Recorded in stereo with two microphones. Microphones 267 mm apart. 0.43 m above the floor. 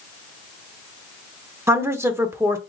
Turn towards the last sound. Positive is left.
turn(degrees=-10)  # may be behind; listen again after turning